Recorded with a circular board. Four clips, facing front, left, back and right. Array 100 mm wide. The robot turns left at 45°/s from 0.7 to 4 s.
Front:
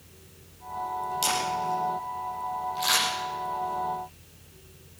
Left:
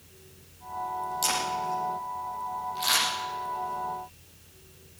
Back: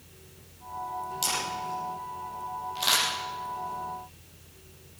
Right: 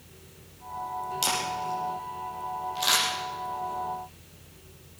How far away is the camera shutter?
About 6 m.